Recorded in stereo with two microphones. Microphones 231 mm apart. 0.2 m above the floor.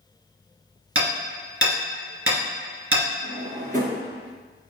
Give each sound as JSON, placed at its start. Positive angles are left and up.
{"t": 0.9, "sound": "hammering", "side_deg": -70, "distance_m": 2.0}
{"t": 3.2, "sound": "a drawer", "side_deg": -35, "distance_m": 1.8}